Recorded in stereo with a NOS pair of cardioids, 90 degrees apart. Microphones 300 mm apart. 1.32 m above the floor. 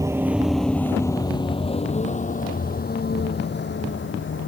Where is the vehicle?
10° right; by 4.5 s 40° left.